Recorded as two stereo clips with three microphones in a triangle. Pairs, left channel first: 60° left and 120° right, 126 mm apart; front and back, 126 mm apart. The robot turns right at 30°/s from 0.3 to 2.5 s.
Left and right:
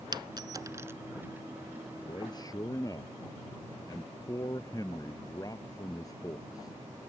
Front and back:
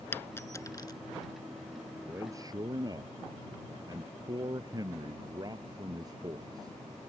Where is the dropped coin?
70° right; by 0.9 s 50° right.